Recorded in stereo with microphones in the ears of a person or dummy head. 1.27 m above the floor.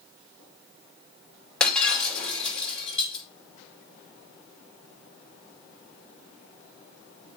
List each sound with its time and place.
1.6 s breaking glass: 5° left (ahead or behind), 2.5 m